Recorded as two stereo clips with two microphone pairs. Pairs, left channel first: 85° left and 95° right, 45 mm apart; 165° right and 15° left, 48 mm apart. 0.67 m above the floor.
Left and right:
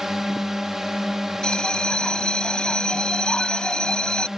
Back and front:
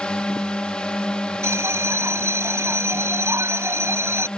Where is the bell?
15° left.